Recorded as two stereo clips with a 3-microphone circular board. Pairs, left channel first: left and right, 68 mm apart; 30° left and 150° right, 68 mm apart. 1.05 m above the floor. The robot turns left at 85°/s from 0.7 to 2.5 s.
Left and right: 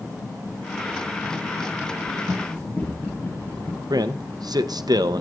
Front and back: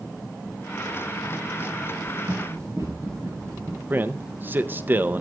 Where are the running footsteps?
Straight behind, 7 m; by 3.8 s 150° left, 6.5 m.